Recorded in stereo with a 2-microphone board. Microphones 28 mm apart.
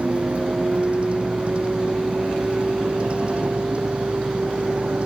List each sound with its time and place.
0.0 s a vehicle: 45° right (ahead or behind)